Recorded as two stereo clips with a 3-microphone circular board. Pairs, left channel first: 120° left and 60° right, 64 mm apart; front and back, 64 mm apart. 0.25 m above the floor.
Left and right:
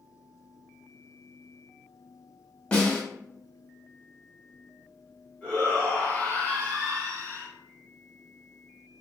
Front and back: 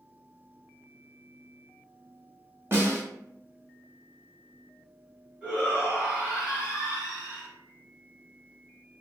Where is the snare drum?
Straight behind, 1.0 m.